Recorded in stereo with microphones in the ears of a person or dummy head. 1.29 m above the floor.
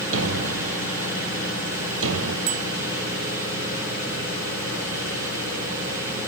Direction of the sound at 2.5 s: 45° right (ahead or behind).